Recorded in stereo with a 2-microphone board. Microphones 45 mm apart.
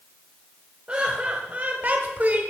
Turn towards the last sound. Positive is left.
turn(degrees=-35)  # may be behind; listen again after turning